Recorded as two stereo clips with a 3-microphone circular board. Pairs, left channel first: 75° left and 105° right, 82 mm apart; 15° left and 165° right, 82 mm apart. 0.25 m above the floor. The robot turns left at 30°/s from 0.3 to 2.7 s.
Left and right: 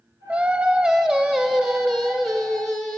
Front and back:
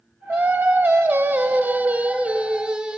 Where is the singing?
140° right, 1.2 m; by 3.0 s 145° left, 1.2 m.